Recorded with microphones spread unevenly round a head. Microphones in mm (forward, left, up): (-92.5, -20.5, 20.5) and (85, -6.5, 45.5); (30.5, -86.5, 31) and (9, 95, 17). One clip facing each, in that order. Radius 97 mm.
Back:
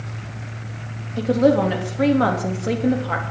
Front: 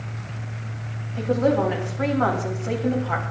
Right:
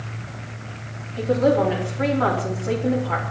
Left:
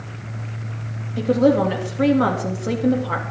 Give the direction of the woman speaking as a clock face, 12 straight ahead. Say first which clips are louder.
Back 4 dB, left 2 dB; 7 o'clock.